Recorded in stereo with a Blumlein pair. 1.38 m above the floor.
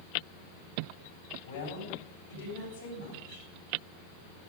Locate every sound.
1.4 s a woman speaking: 70° left, 8.5 m